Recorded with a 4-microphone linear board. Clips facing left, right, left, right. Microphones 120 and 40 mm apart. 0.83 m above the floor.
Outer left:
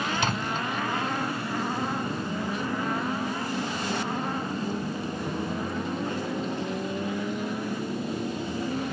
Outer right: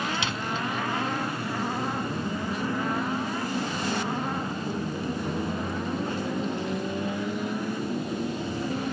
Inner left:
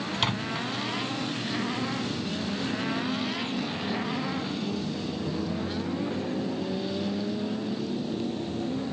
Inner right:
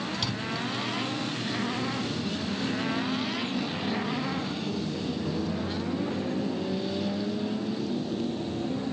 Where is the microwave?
45° left (ahead or behind).